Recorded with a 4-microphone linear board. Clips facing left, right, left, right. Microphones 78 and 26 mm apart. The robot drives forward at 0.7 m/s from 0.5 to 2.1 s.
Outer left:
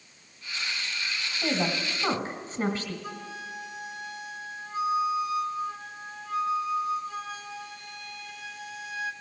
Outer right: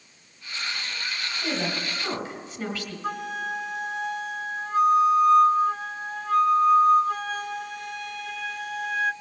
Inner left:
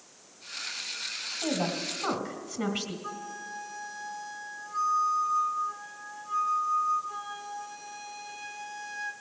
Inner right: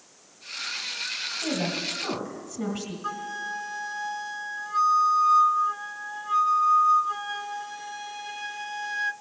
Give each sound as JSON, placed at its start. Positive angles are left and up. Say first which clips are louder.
{"t": 1.4, "sound": "a woman speaking", "louder": "outer left 2 dB, even", "side_deg": 35, "distance_m": 2.0}
{"t": 3.0, "sound": "a flute", "louder": "outer right 9 dB, inner right 7 dB", "side_deg": -70, "distance_m": 0.5}